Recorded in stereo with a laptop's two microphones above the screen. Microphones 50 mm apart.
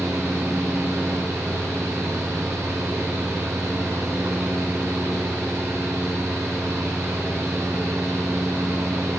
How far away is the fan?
About 0.7 m.